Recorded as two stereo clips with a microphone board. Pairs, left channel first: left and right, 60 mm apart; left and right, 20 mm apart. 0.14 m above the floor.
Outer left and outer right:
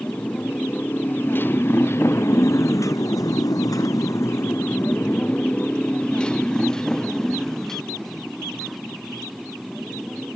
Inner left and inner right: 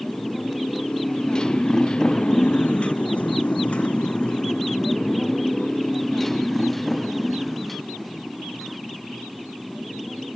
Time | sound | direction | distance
0.0 | a motorcycle | 25° left (ahead or behind) | ?